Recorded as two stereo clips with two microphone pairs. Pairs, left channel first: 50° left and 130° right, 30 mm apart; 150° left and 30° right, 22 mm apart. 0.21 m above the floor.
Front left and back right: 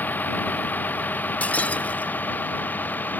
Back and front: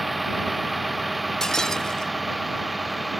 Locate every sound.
0.0 s a vehicle: 60° left
1.4 s breaking glass: 90° left